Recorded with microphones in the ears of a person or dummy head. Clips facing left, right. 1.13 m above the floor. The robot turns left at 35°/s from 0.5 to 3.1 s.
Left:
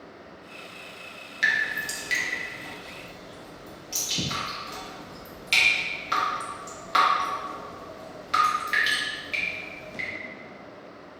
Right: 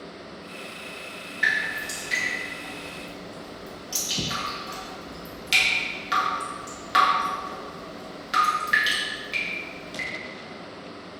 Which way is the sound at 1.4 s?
55° left (ahead or behind).